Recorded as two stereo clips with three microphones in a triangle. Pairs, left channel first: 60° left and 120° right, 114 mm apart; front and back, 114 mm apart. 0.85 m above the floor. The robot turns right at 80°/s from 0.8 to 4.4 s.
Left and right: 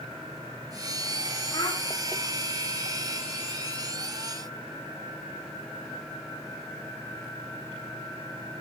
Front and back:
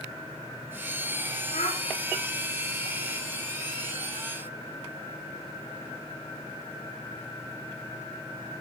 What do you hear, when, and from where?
1.5 s a child speaking: 15° left, 4 m; by 1.8 s 35° left, 4 m